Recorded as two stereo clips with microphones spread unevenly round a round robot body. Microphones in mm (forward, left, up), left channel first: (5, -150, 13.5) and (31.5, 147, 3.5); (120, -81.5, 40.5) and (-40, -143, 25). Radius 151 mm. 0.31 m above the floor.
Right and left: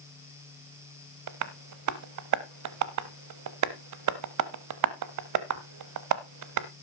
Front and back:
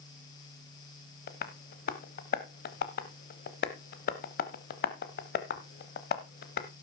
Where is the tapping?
60° left, 0.8 m.